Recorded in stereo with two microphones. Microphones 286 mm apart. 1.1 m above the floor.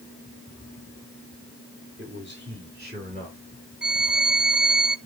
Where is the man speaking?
45° right (ahead or behind), 3 m; by 3.4 s 30° right (ahead or behind), 3.5 m.